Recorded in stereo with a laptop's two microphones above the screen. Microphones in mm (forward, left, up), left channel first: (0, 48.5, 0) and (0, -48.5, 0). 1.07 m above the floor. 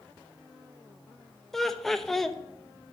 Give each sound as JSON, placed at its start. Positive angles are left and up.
{"t": 1.5, "sound": "laughter", "side_deg": 5, "distance_m": 0.8}